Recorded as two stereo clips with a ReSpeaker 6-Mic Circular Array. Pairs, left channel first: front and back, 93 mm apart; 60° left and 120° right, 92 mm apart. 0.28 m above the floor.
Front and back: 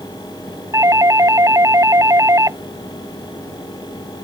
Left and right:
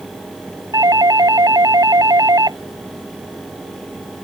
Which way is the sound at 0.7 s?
140° right.